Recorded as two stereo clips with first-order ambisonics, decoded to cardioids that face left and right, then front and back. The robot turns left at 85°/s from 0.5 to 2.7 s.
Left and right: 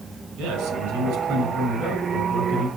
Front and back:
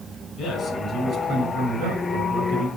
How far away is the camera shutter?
No camera shutter in this recording.